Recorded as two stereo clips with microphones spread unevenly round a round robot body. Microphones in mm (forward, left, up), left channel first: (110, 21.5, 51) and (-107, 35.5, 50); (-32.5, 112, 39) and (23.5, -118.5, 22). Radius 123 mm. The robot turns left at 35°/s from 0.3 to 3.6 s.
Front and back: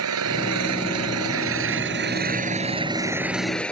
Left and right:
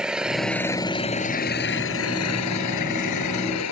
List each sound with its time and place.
0.0 s an engine running: 165° right; by 3.7 s 80° left